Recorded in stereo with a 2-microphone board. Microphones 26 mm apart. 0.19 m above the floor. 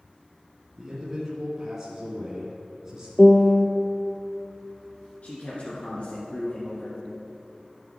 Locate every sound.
0.8 s a man speaking: 20° right (ahead or behind), 1.9 m
3.2 s a piano: 25° left (ahead or behind), 0.8 m
5.2 s a man speaking: 50° left (ahead or behind), 2 m